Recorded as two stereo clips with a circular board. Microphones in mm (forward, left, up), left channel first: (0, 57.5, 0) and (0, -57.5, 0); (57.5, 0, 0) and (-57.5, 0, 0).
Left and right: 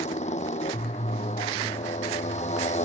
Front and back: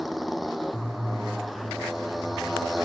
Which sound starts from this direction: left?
A motorcycle, at 0.0 s.